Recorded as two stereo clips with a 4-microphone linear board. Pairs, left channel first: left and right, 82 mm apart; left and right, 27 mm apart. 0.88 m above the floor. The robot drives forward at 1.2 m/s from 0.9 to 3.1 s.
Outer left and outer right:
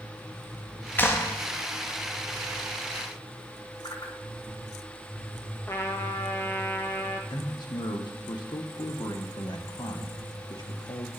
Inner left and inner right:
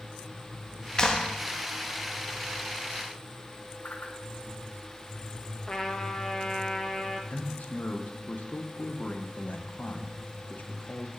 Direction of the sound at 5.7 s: 35° left (ahead or behind).